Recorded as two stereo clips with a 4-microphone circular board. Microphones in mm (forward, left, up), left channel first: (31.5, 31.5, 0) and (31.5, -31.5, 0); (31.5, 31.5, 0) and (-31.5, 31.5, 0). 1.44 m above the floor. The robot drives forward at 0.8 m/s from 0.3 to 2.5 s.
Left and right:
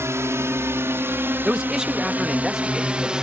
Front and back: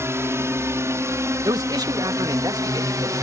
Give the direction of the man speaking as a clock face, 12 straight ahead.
6 o'clock.